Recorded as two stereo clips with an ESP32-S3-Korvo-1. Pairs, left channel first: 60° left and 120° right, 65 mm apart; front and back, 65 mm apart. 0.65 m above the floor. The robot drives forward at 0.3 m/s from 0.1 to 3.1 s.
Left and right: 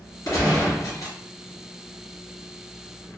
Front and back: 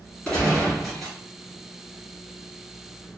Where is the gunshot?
75° left, 1.6 m; by 1.2 s 85° left, 1.5 m.